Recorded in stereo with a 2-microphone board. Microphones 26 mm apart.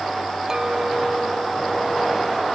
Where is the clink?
25° right (ahead or behind), 0.7 m.